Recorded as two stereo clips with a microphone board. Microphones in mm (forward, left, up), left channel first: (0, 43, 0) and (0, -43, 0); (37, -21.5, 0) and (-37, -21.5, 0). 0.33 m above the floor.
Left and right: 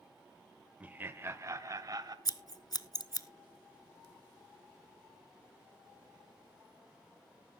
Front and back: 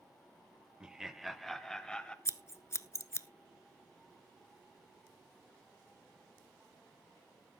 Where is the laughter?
120° right, 0.8 m; by 2.1 s 75° right, 1.2 m.